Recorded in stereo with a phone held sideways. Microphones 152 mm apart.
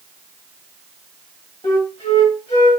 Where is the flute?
45° left (ahead or behind), 1.2 m.